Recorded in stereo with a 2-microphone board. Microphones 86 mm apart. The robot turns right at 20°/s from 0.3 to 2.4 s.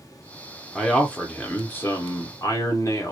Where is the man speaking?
5° left, 0.6 m; by 3.1 s 35° left, 0.6 m.